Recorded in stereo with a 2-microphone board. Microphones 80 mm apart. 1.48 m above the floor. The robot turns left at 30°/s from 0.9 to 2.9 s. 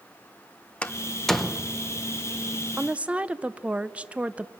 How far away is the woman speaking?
About 0.6 m.